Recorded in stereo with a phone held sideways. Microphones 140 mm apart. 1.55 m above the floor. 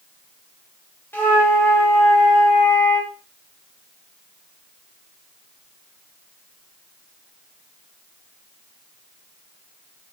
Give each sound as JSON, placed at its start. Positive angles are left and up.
{"t": 1.1, "sound": "a flute", "side_deg": 15, "distance_m": 1.0}